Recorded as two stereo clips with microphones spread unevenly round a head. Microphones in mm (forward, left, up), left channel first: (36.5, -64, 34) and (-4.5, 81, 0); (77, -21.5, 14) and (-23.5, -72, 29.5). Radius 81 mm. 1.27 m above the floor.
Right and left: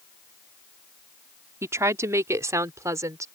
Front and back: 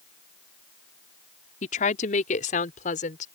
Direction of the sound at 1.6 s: 30° left.